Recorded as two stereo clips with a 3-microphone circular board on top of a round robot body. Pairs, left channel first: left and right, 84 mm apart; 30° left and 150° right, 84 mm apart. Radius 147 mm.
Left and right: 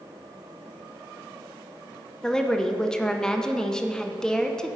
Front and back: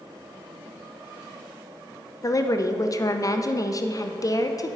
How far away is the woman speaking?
About 0.7 m.